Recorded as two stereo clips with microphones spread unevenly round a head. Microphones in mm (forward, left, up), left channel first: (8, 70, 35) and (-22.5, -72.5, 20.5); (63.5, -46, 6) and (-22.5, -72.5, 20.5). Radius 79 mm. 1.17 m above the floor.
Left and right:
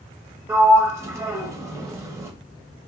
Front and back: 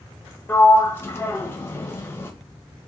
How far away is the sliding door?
About 0.7 m.